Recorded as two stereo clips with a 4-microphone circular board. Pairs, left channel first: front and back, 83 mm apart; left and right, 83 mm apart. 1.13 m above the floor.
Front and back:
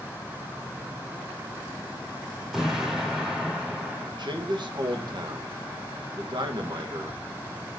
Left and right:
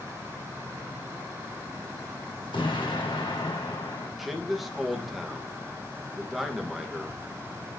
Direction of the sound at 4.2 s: Straight behind.